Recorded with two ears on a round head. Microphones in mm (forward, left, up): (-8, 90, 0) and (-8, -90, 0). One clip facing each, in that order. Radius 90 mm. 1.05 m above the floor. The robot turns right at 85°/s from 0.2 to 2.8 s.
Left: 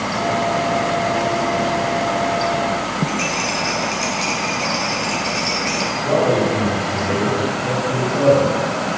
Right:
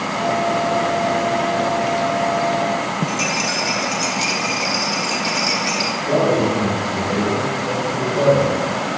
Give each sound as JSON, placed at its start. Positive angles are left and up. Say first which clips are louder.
{"t": 3.1, "sound": "a rattle", "louder": "even", "side_deg": -15, "distance_m": 2.0}
{"t": 6.0, "sound": "a man speaking", "louder": "even", "side_deg": 65, "distance_m": 3.5}